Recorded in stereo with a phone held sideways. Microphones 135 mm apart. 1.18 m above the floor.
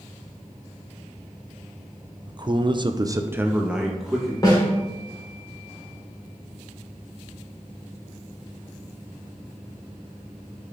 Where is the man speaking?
30° right (ahead or behind), 0.9 m; by 4.3 s centre (ahead or behind), 1.6 m.